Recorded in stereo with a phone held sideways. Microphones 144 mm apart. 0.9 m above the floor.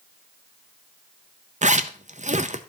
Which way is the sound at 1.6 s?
50° right (ahead or behind).